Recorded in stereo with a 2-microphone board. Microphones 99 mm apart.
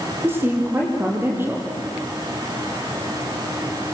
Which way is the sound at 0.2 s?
20° right (ahead or behind).